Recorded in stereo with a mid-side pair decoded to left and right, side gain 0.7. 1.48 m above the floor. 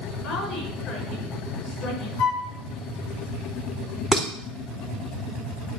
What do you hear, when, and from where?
0.2 s a woman speaking: 45° left, 5.5 m
2.2 s a flute: 65° left, 1.6 m
4.1 s dishes clattering: 15° left, 3 m